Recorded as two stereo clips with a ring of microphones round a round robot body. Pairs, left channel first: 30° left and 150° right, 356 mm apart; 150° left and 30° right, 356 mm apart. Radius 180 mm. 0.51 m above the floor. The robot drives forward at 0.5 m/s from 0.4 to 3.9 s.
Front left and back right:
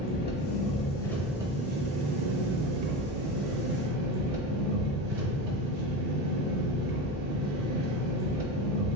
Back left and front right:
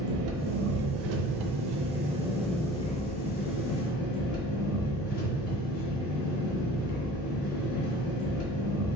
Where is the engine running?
35° right, 0.9 m; by 9.0 s 150° right, 1.1 m.